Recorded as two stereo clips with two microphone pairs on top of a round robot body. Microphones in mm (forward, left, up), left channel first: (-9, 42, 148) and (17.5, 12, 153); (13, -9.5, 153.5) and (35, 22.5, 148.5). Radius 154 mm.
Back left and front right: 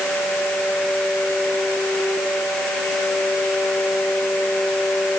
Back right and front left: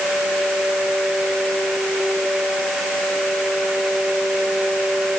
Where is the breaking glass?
I don't hear breaking glass.